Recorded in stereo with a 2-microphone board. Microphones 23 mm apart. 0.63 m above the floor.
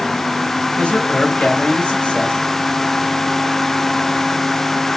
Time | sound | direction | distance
0.8 | a man speaking | 70° left (ahead or behind) | 2.5 m